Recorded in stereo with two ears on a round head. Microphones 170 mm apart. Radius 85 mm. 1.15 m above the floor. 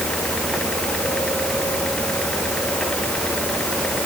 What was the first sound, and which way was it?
Only background noise.